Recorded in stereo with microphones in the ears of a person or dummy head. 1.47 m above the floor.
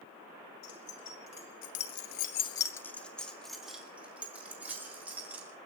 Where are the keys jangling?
25° left (ahead or behind), 2.5 m; by 5.5 s 10° right (ahead or behind), 5.5 m.